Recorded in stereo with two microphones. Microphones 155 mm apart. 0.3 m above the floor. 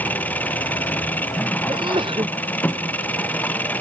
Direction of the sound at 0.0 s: 10° left (ahead or behind).